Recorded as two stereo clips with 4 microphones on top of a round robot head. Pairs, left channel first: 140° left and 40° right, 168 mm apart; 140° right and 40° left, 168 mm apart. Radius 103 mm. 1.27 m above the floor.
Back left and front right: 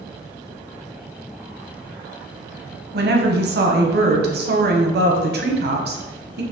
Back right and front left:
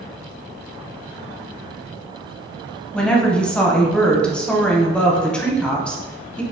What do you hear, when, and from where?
2.9 s a woman speaking: 55° right, 1.0 m